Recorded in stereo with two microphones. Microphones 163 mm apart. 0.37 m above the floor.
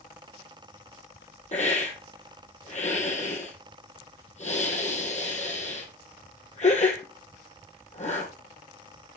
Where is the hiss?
45° left (ahead or behind), 1.8 m.